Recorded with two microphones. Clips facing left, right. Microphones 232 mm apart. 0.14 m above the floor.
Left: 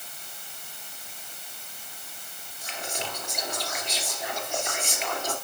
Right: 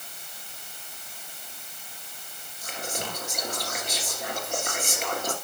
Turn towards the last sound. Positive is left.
turn(degrees=-50)  # may be behind; listen again after turning